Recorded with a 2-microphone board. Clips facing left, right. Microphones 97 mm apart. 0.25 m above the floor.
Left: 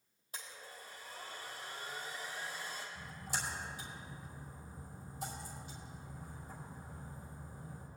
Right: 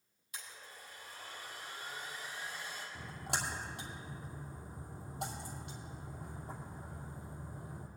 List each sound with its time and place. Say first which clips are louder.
0.3 s a blender: left 1 dB; 35° left (ahead or behind), 4 m
3.0 s a splash: right 6 dB; 70° right (ahead or behind), 2.5 m